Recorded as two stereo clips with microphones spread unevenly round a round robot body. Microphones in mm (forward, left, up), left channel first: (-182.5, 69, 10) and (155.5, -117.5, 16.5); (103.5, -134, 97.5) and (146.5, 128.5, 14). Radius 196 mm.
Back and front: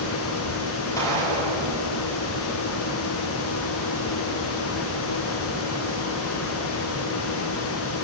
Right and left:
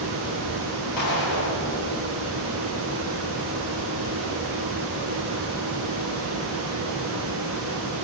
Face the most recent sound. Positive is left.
turn(degrees=-125)